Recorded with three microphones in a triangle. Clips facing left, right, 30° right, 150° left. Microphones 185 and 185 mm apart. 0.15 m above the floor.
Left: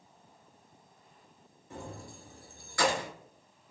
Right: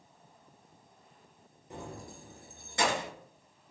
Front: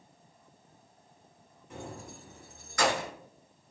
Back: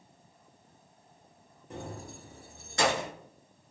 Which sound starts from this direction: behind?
Keys jangling, at 1.7 s.